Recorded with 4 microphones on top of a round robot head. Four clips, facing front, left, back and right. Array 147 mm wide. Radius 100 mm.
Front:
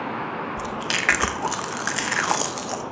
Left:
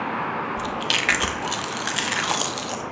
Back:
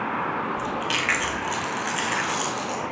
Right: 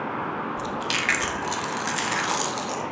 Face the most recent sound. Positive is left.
turn(degrees=20)